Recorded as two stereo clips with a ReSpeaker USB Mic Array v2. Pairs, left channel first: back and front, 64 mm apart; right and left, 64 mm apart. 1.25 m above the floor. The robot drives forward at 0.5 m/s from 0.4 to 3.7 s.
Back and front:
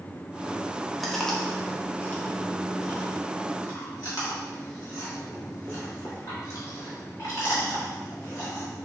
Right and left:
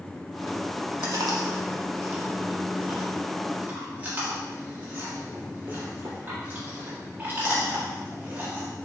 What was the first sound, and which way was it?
Chewing, 90° left.